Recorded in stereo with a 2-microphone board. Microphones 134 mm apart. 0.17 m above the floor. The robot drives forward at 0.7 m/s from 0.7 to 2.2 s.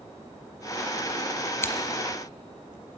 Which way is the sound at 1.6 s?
20° left (ahead or behind).